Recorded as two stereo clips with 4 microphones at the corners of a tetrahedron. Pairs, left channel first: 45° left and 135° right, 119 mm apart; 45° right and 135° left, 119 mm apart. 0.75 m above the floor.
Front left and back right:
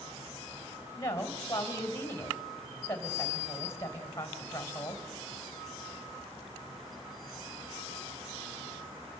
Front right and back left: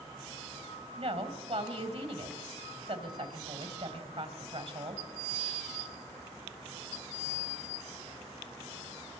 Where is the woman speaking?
110° left, 3.5 m.